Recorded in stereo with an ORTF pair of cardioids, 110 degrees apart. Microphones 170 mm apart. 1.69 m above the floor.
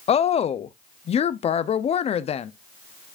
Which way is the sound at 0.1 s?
40° left.